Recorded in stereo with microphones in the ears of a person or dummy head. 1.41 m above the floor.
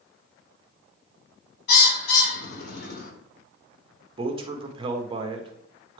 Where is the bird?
60° left (ahead or behind), 1.1 m.